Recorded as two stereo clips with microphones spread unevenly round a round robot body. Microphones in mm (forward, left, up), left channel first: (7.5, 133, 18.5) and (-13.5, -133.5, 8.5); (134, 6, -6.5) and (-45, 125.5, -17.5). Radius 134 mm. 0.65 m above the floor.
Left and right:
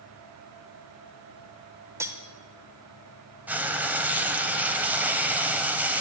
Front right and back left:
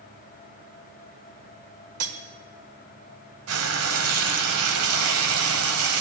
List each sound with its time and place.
2.0 s cutlery clinking: 175° right, 1.0 m
3.5 s frying: straight behind, 1.1 m